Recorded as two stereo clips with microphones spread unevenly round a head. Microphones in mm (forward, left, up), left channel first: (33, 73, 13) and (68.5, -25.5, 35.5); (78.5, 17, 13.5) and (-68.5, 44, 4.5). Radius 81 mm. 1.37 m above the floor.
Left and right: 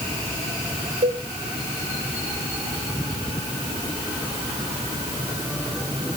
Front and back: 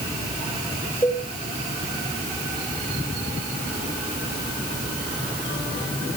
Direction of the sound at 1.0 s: 90° right.